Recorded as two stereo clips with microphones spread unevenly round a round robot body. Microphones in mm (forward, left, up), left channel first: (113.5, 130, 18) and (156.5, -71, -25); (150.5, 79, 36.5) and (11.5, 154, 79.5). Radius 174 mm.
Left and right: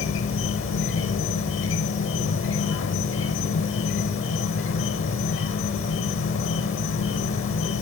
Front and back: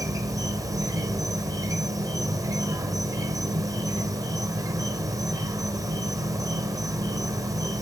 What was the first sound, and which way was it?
An insect, 80° left.